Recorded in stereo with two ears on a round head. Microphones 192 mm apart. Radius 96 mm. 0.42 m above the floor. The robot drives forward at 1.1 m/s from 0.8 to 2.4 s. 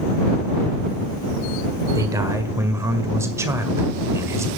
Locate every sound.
1.9 s a man speaking: 15° right (ahead or behind), 1.6 m